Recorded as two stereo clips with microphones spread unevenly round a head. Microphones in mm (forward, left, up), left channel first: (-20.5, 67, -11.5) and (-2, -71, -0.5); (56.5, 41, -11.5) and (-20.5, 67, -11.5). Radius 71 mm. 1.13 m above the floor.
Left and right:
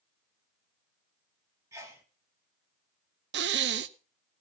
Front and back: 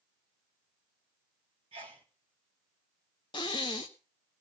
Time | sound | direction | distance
1.7 | a sneeze | 155° right | 1.8 m
3.3 | breathing | 75° right | 0.8 m